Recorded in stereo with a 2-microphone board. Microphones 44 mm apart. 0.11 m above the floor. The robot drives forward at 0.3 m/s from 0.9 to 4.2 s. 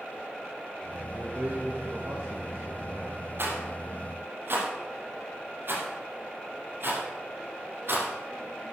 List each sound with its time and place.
1.1 s a man speaking: 40° right (ahead or behind), 3 m; by 3.2 s 50° right (ahead or behind), 2.5 m
3.4 s a rattle: 55° right (ahead or behind), 3 m